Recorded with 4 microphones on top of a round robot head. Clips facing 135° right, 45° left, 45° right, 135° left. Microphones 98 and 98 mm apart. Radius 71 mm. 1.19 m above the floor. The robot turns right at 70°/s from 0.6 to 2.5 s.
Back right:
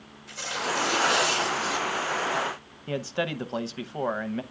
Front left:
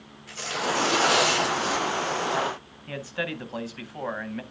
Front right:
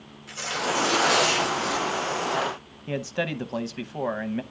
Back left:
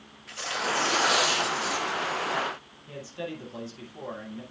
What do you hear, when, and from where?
0.3 s tearing paper: 15° left, 6.5 m; by 2.1 s 115° left, 6.5 m
2.9 s a man speaking: 75° right, 0.8 m